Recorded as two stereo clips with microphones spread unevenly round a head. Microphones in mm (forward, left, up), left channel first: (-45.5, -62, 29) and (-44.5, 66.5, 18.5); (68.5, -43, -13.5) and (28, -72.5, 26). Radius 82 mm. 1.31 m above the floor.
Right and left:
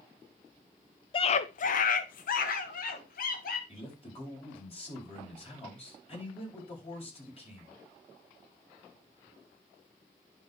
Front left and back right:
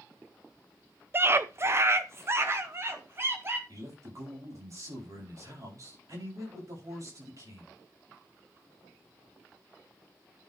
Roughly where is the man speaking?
Behind right.